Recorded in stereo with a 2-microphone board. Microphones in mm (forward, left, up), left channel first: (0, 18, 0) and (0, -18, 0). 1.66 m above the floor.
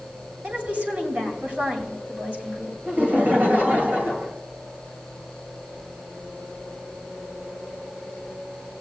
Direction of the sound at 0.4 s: 50° right (ahead or behind).